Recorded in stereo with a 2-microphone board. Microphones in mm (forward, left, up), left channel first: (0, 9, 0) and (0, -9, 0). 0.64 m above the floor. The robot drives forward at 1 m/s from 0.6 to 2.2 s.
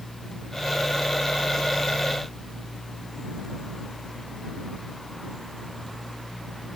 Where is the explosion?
No explosion in this recording.